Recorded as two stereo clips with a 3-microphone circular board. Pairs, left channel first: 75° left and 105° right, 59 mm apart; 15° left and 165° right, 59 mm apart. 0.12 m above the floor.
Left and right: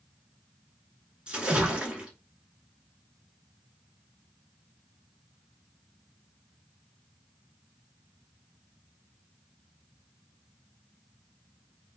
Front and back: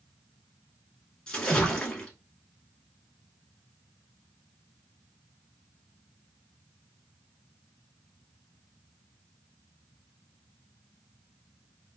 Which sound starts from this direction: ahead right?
A splash, at 1.3 s.